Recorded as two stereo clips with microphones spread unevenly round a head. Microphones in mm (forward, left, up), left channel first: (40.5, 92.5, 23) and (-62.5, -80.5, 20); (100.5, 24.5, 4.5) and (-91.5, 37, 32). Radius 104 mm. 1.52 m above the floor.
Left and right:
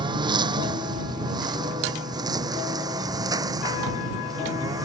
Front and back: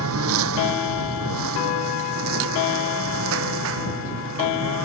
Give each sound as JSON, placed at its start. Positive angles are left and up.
{"t": 0.0, "sound": "a lawn mower", "azimuth_deg": 170}